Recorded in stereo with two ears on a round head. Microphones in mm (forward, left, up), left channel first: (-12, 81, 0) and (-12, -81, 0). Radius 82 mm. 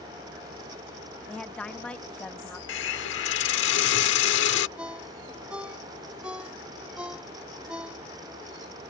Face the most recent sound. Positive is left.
turn(degrees=-5)  # may be behind; listen again after turning